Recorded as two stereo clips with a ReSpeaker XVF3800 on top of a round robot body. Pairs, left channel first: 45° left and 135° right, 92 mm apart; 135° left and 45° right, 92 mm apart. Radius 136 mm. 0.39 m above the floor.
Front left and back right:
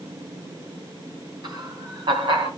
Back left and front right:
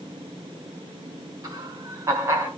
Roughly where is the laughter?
Right.